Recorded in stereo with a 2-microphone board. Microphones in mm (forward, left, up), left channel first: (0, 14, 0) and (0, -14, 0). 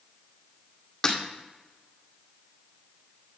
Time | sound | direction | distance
1.0 | breaking glass | 20° left (ahead or behind) | 1.8 m